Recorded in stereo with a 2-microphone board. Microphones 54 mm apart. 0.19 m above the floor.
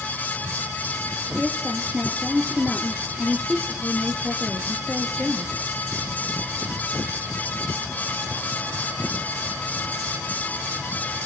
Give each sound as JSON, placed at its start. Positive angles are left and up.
{"t": 1.4, "sound": "a woman speaking", "side_deg": -20, "distance_m": 3.5}